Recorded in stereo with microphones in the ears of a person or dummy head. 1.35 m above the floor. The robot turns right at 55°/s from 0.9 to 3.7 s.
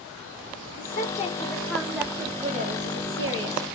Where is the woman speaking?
130° left, 0.7 m; by 3.6 s 80° right, 0.7 m.